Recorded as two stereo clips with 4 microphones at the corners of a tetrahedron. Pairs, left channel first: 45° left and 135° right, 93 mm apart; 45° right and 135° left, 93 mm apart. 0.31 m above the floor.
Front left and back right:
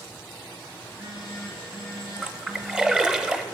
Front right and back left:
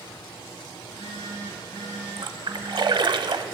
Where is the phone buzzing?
75° right, 4 m.